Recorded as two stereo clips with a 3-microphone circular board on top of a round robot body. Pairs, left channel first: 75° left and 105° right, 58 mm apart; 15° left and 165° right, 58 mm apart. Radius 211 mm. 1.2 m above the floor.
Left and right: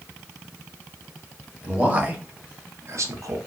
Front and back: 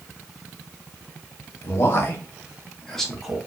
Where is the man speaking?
35° right, 1.3 m; by 3.4 s 85° right, 0.9 m.